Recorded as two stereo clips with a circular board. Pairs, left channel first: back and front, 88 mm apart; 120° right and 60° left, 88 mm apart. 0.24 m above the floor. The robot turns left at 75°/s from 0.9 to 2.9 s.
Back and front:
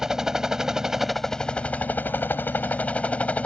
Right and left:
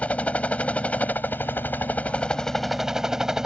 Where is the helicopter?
75° right; by 3.5 s 135° left.